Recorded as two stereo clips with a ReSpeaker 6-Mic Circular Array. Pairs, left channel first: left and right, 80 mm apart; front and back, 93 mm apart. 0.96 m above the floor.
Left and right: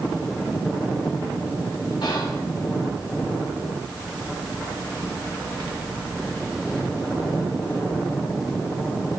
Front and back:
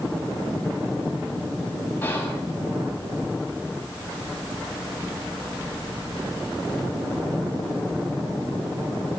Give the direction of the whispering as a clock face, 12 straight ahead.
10 o'clock.